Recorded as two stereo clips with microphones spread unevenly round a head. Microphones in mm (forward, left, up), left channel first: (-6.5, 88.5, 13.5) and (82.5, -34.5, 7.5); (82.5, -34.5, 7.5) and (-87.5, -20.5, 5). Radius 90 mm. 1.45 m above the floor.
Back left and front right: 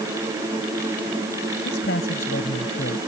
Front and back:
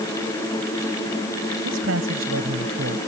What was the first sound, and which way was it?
A man speaking, 160° left.